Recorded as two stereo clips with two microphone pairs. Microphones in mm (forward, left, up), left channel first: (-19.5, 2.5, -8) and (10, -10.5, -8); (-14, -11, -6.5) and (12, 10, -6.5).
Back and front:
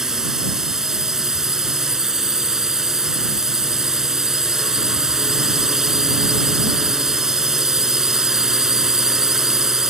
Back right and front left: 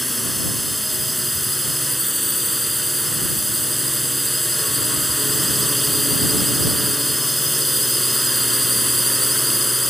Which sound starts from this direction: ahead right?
A drone, at 0.0 s.